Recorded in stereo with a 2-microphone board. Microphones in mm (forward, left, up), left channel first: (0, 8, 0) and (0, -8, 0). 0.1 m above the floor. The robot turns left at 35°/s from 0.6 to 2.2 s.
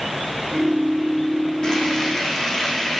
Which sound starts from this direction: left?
Frying, at 1.6 s.